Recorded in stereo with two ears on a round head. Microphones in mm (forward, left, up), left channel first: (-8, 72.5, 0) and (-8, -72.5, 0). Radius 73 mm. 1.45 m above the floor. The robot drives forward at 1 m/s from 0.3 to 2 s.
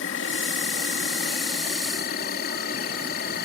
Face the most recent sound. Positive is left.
turn(degrees=65)  # may be behind; listen again after turning